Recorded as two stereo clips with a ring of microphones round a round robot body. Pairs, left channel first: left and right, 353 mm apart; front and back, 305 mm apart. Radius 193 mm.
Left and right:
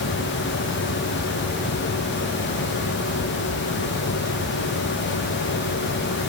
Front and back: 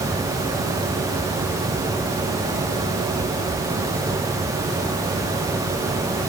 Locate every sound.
Only background noise.